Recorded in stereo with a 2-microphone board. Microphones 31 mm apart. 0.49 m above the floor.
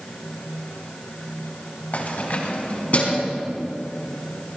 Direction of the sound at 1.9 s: 60° left (ahead or behind).